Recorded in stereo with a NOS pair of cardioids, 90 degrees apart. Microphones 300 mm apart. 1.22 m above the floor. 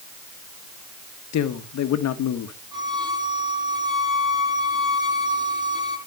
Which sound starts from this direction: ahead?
A violin, at 2.7 s.